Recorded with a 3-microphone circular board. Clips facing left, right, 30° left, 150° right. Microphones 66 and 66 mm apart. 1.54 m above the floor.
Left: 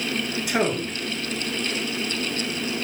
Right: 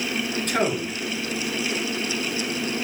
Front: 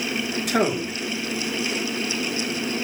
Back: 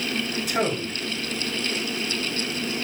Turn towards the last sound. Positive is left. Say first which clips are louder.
# left 1 dB, front 4 dB
turn(degrees=10)